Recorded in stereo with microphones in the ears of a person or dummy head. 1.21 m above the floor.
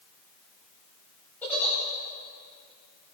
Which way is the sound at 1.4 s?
15° left (ahead or behind).